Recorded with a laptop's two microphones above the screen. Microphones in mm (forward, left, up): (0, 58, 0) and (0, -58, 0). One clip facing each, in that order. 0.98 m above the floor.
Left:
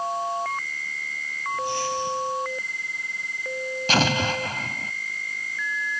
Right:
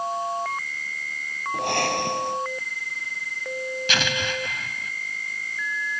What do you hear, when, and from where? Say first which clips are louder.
1.5 s breathing: right 2 dB; 65° right (ahead or behind)
3.9 s an explosion: left 7 dB; 40° left (ahead or behind)